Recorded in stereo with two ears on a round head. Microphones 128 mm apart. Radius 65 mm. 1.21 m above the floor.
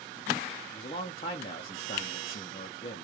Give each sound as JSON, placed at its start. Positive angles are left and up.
{"t": 0.7, "sound": "a man speaking", "side_deg": 40, "distance_m": 0.6}